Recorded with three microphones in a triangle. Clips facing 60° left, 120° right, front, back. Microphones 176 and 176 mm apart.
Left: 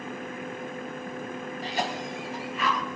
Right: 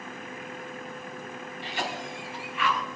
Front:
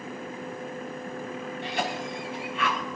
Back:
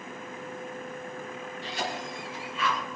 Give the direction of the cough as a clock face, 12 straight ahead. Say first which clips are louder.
Left 3 dB, front 3 dB; 12 o'clock.